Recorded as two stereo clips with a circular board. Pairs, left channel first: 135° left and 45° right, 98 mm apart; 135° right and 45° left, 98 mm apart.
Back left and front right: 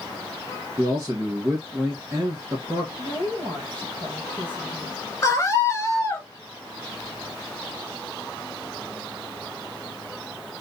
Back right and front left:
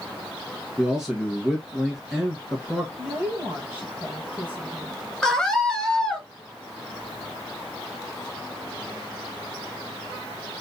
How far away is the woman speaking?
About 2.5 m.